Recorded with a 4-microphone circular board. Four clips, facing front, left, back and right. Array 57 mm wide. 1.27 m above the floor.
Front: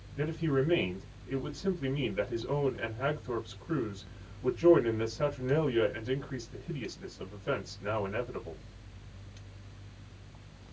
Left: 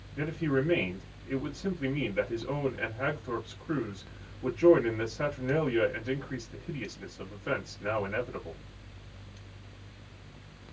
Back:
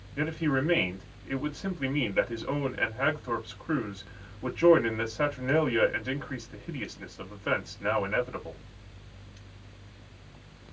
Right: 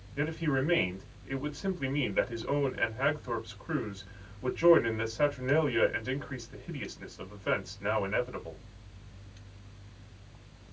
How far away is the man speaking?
About 1.9 m.